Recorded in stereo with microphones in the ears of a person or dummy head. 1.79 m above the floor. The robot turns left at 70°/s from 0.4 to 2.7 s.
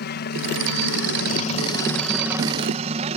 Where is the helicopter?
50° left (ahead or behind); by 3.2 s 35° right (ahead or behind).